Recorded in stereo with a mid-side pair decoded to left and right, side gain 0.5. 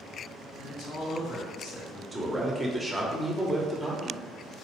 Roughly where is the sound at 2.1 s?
Ahead.